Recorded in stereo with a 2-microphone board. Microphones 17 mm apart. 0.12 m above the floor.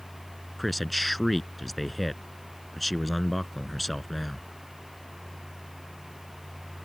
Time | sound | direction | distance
0.6 | a man speaking | centre (ahead or behind) | ?